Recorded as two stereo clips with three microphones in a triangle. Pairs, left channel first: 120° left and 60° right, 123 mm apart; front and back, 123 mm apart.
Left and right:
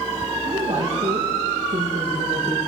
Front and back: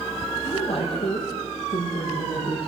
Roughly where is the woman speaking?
Ahead right.